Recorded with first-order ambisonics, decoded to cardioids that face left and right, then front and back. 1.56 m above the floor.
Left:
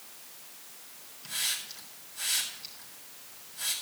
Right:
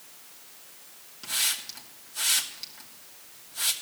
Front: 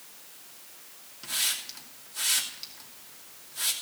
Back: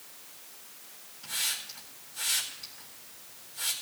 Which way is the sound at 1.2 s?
55° right.